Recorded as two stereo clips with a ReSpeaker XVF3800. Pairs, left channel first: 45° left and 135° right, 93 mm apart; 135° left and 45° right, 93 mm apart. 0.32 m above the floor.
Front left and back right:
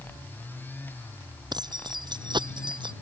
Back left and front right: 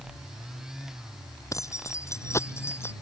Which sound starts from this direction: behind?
Keys jangling, at 1.5 s.